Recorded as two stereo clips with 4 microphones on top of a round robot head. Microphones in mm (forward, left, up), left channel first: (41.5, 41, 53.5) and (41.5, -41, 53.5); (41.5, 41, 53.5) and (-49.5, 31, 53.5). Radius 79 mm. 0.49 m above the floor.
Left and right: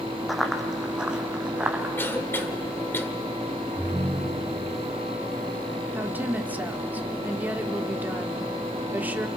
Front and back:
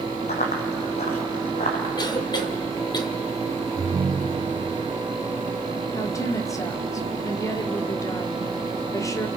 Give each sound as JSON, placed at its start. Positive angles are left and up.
{"t": 0.3, "sound": "running footsteps", "azimuth_deg": 0, "distance_m": 1.8}
{"t": 2.0, "sound": "a cough", "azimuth_deg": 30, "distance_m": 2.0}
{"t": 3.8, "sound": "a ringtone", "azimuth_deg": -135, "distance_m": 0.7}
{"t": 6.0, "sound": "a woman speaking", "azimuth_deg": -30, "distance_m": 1.5}